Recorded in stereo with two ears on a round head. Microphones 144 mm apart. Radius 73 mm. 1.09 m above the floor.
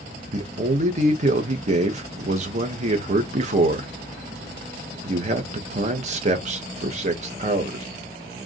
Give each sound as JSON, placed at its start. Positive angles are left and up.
{"t": 0.3, "sound": "a man speaking", "side_deg": -45, "distance_m": 1.4}